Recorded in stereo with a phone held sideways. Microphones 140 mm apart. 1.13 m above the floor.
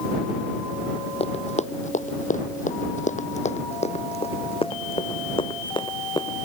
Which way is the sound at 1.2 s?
45° left (ahead or behind).